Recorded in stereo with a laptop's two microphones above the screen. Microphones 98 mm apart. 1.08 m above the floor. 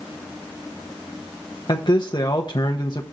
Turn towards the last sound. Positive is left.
turn(degrees=50)  # may be behind; listen again after turning